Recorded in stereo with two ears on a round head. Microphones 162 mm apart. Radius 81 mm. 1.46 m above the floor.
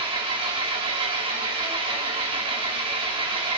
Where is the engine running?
30° right (ahead or behind), 1.3 m.